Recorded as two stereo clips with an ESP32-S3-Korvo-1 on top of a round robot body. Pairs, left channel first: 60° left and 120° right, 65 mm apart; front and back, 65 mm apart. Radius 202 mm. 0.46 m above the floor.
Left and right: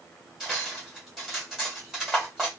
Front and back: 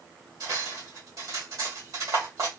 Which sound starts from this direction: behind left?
Cutlery clinking, at 0.4 s.